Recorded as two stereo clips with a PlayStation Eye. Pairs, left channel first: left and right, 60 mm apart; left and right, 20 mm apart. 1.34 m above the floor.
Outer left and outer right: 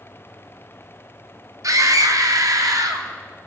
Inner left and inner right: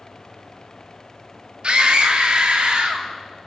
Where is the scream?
70° right (ahead or behind), 3 m; by 3.1 s 85° right, 4 m.